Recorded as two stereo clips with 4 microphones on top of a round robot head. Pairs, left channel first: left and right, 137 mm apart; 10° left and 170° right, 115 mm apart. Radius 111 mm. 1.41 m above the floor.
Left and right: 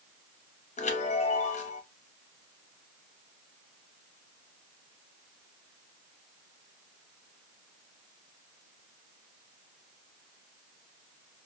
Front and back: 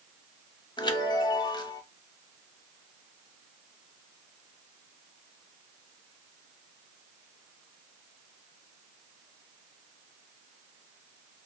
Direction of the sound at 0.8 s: 60° left.